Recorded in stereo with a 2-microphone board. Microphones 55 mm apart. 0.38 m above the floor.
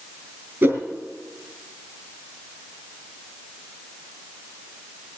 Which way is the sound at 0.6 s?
45° right (ahead or behind).